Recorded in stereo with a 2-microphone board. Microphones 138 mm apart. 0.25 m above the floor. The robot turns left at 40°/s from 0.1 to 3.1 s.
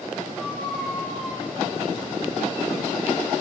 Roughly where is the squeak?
Centre.